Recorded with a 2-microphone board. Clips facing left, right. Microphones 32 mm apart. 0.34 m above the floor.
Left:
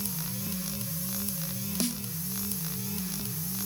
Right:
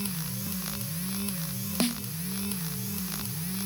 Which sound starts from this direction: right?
A snare drum, at 1.8 s.